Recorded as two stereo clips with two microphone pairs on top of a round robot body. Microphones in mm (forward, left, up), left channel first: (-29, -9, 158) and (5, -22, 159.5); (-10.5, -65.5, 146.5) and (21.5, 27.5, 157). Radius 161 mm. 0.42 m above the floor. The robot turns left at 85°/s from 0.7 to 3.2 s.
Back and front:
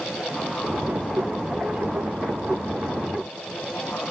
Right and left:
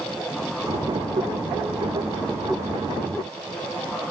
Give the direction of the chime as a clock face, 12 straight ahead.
I don't hear a chime.